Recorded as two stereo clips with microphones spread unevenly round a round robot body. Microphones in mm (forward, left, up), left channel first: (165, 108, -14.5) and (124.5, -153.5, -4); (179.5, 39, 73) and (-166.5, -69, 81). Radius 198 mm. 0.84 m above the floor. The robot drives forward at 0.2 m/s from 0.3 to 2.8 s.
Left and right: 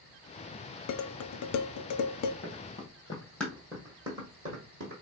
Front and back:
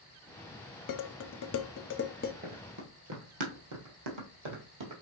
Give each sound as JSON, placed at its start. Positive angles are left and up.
{"t": 0.9, "sound": "dishes clattering", "azimuth_deg": 55, "distance_m": 0.6}
{"t": 2.4, "sound": "running footsteps", "azimuth_deg": 130, "distance_m": 1.2}